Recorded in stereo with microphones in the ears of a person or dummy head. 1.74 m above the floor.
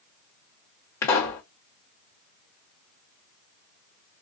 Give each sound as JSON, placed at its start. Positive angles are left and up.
{"t": 1.0, "sound": "a pop", "side_deg": 10, "distance_m": 1.0}